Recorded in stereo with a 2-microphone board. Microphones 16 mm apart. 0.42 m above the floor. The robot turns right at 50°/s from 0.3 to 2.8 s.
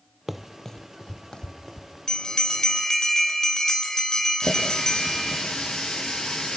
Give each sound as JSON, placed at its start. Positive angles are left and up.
{"t": 0.3, "sound": "running footsteps", "side_deg": -25, "distance_m": 0.6}
{"t": 2.1, "sound": "a bell", "azimuth_deg": 70, "distance_m": 2.0}
{"t": 4.4, "sound": "a running tap", "side_deg": 70, "distance_m": 7.0}